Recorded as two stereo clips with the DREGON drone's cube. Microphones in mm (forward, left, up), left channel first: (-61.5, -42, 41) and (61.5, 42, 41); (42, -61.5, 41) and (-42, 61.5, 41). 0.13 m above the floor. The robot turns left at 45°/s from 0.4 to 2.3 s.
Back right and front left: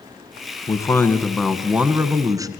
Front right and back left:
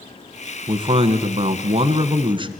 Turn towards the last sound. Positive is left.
turn(degrees=90)